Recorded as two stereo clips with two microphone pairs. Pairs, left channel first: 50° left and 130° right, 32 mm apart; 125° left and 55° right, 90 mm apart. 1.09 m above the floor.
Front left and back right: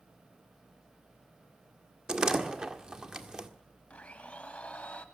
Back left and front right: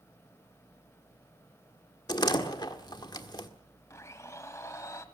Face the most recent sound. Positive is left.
turn(degrees=80)